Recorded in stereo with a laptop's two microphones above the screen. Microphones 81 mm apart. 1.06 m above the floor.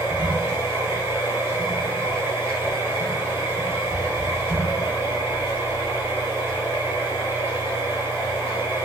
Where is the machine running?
15° right (ahead or behind), 1.6 m.